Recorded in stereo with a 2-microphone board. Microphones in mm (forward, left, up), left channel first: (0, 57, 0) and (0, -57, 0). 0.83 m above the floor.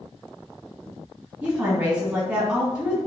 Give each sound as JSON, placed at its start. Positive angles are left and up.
{"t": 1.4, "sound": "a woman speaking", "side_deg": -20, "distance_m": 1.7}